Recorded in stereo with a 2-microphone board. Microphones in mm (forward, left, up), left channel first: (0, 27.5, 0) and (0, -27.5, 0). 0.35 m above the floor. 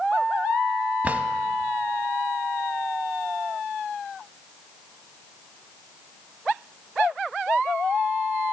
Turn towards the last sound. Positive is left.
turn(degrees=-25)  # may be behind; listen again after turning